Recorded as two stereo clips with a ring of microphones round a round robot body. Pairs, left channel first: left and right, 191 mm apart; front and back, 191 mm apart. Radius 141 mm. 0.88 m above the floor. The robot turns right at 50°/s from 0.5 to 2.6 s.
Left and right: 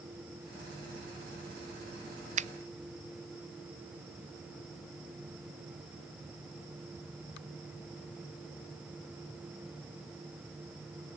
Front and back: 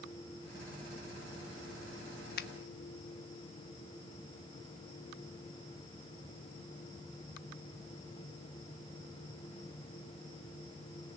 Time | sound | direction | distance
2.4 | a finger snap | 40° right | 0.5 m